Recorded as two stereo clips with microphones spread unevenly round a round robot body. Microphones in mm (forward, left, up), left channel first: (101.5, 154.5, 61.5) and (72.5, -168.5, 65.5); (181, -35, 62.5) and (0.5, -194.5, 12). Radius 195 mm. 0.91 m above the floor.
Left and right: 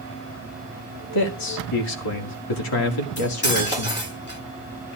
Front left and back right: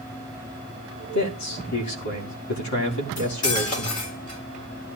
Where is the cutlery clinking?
25° left, 8.5 m.